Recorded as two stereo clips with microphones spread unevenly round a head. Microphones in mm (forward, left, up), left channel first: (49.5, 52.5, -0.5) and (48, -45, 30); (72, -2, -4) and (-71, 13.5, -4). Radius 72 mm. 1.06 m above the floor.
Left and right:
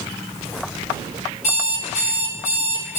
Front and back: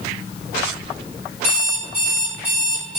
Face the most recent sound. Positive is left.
turn(degrees=120)